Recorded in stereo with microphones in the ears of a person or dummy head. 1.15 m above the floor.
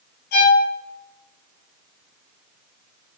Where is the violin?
55° left (ahead or behind), 1.5 m.